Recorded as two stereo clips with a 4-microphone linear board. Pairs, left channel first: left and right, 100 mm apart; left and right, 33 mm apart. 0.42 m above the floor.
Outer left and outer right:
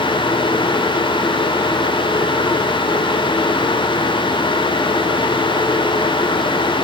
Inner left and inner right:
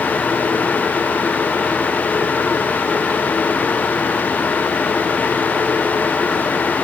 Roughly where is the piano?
No piano in this recording.